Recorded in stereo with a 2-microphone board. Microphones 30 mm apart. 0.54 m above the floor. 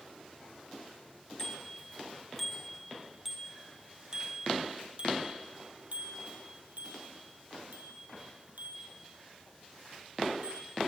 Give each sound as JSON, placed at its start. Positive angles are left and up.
{"t": 1.4, "sound": "a bicycle bell", "side_deg": 15, "distance_m": 3.0}